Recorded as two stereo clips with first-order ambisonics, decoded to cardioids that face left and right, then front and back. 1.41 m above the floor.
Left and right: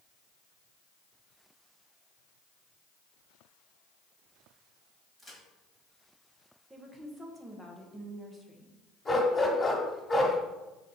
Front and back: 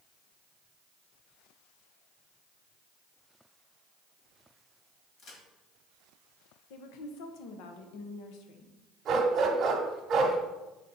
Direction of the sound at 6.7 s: 10° right.